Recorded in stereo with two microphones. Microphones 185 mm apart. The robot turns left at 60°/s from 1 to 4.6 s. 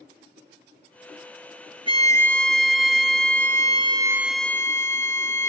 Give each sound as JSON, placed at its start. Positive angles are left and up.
{"t": 1.9, "sound": "a violin", "azimuth_deg": -30}